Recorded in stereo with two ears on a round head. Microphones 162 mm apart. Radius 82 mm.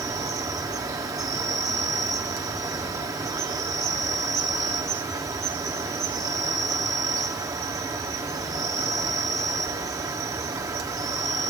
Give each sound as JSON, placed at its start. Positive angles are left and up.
{"t": 0.0, "sound": "an insect", "side_deg": -20, "distance_m": 1.0}